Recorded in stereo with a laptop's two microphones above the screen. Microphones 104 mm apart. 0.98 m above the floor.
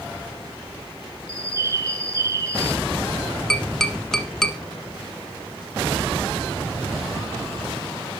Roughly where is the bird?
Right.